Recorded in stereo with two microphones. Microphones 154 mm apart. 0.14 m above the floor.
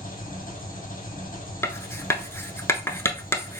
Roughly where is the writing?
Centre.